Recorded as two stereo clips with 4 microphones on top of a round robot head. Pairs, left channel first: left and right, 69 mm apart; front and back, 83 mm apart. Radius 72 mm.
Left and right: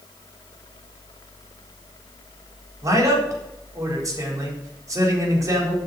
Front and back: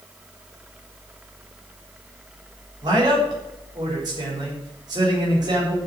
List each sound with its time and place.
2.8 s a man speaking: 130° right, 4 m